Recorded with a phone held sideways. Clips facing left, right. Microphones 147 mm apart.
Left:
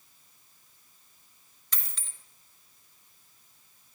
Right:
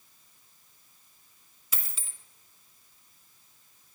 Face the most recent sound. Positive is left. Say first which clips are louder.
# even
turn(degrees=-5)  # may be behind; listen again after turning